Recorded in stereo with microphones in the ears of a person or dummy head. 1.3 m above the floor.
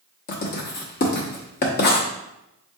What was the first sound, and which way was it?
Writing, 50° left (ahead or behind).